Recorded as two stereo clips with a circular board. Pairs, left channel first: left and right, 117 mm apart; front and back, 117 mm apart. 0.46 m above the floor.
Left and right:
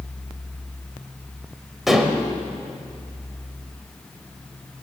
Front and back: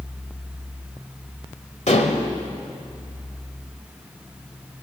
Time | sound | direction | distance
1.9 | dishes clattering | 5° right | 1.4 m